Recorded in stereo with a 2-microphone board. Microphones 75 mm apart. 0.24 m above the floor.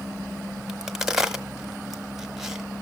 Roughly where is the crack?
Centre.